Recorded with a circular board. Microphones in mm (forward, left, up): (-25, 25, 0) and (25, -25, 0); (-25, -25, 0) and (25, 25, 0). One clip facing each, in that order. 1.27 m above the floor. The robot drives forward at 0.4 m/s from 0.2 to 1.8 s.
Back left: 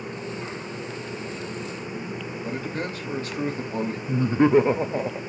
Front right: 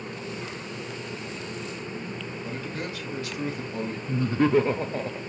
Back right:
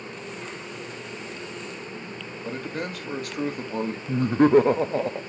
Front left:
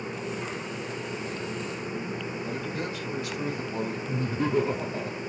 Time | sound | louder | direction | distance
2.4 | a man speaking | back left 5 dB, back right 5 dB | 170° right | 3 m
4.1 | laughter | back left 3 dB, back right 11 dB | 155° right | 0.5 m